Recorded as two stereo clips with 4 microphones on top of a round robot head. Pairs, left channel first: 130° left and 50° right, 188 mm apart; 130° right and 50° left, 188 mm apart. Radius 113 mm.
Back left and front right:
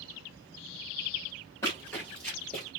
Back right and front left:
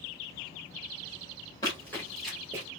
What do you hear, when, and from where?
1.6 s running footsteps: 175° right, 1.2 m; by 2.7 s 35° left, 1.2 m